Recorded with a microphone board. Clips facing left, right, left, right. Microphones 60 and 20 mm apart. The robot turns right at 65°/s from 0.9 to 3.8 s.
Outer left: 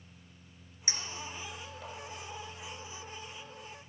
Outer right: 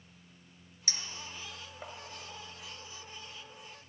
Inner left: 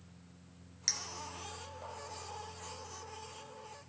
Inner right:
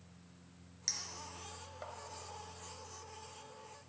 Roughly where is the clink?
Left.